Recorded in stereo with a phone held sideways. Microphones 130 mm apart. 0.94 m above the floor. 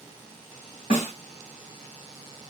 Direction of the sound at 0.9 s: 65° left (ahead or behind).